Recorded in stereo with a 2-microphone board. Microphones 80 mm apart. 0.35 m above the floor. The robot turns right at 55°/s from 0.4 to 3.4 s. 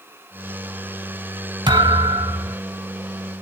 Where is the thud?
105° right, 1.2 m; by 2.6 s 55° right, 1.2 m.